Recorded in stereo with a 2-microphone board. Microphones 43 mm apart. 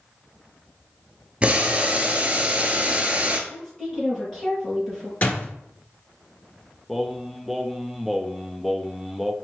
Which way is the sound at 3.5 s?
10° left (ahead or behind).